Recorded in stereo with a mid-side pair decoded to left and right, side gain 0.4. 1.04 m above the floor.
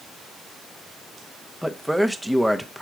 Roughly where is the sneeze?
No sneeze in this recording.